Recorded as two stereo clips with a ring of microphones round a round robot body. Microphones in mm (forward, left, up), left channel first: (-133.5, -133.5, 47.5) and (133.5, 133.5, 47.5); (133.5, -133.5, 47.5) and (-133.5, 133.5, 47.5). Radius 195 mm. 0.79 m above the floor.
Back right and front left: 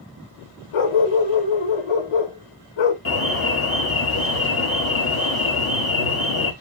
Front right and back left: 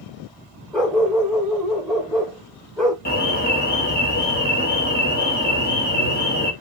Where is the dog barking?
135° right, 1.4 m.